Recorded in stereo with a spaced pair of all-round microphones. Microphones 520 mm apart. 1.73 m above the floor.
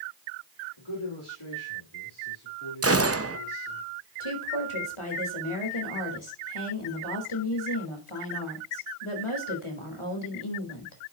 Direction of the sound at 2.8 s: 30° right (ahead or behind).